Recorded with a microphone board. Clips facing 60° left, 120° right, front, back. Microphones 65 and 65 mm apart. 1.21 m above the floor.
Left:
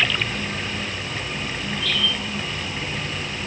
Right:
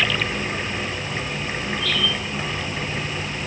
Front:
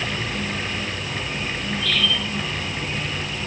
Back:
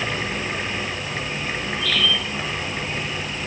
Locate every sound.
Only background noise.